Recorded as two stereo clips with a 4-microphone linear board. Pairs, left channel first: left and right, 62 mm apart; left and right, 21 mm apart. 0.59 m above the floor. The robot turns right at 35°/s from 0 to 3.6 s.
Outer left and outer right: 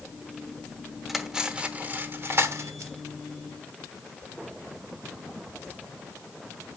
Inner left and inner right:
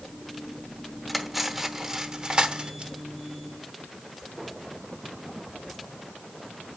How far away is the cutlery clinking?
About 0.9 m.